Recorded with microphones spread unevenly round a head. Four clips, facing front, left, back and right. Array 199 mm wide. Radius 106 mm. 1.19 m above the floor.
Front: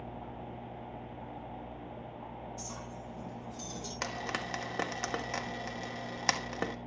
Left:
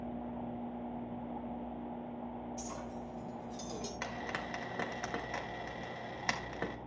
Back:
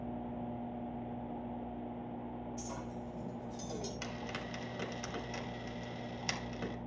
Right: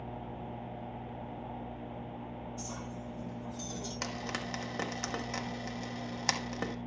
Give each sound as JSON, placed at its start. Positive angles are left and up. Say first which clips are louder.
{"t": 2.6, "sound": "a clink", "louder": "even, back 1 dB", "azimuth_deg": 170, "distance_m": 2.0}
{"t": 4.0, "sound": "frying", "louder": "right 4 dB, front 5 dB", "azimuth_deg": -5, "distance_m": 1.4}